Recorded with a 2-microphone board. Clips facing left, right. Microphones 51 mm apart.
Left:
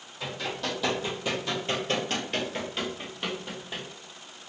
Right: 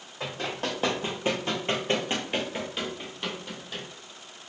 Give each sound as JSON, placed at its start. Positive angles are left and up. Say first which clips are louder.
{"t": 0.2, "sound": "running footsteps", "louder": "right 1 dB", "side_deg": -45, "distance_m": 2.0}